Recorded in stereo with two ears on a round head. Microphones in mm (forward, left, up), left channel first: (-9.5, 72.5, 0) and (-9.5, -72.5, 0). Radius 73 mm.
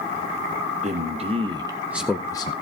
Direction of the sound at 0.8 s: 45° right (ahead or behind).